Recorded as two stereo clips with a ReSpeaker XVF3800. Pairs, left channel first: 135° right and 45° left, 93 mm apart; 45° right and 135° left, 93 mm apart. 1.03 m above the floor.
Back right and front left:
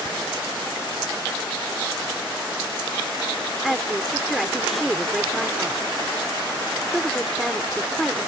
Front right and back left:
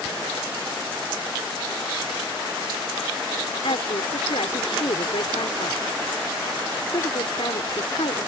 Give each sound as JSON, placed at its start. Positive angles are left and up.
{"t": 3.6, "sound": "a woman speaking", "azimuth_deg": -45}